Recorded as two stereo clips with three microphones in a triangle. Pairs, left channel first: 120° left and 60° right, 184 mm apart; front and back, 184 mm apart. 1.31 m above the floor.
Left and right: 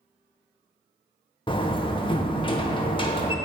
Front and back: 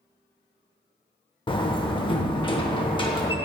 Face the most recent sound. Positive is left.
turn(degrees=60)